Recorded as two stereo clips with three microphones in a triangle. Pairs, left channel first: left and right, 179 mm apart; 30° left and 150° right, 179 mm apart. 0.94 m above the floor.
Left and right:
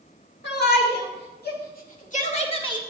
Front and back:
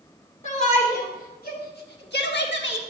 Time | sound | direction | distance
0.4 | a shout | 80° left | 2 m